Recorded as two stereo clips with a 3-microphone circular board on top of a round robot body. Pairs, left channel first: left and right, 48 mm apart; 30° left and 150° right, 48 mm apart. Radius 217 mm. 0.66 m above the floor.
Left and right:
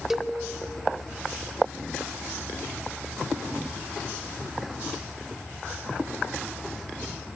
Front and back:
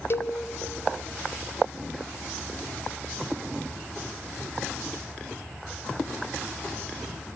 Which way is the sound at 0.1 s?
5° right.